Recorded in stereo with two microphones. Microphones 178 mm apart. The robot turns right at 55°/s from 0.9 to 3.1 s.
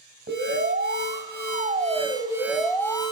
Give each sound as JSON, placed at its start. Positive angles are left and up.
{"t": 0.3, "sound": "an alarm", "azimuth_deg": -95, "distance_m": 4.0}